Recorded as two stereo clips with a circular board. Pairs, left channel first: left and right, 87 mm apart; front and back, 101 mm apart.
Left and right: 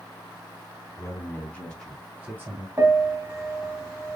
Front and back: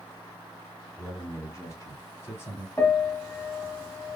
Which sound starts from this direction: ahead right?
A piano, at 2.8 s.